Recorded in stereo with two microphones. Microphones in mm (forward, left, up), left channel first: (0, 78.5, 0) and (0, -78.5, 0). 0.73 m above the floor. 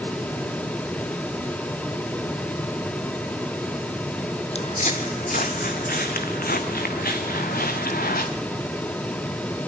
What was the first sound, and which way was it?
Footsteps, 45° left (ahead or behind).